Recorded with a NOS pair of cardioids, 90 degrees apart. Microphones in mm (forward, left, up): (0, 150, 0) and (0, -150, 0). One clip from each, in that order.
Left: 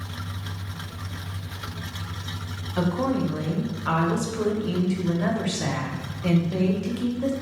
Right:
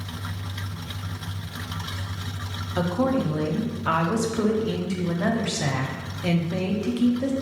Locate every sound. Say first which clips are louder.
2.8 s a woman speaking: right 1 dB; 10° right, 0.6 m